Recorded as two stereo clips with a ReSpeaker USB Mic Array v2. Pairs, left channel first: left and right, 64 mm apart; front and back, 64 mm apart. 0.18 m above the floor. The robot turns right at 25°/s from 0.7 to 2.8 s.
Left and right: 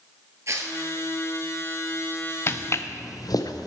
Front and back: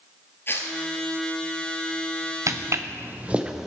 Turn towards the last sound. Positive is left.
turn(degrees=95)